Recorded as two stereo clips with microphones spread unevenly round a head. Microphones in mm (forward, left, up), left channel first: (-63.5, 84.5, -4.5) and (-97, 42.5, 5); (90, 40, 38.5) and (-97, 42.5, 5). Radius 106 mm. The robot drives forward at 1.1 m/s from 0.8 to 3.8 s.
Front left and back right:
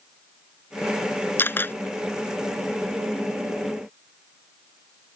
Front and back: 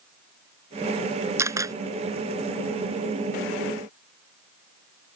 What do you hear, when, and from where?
1.4 s a camera shutter: 100° left; by 1.8 s 105° left